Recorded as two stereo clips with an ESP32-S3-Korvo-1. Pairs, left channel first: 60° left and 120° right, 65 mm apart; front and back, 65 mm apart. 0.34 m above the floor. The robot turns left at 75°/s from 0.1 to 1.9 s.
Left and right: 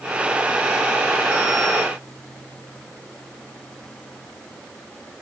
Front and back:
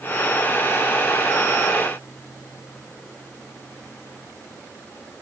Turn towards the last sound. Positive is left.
No sound to turn to.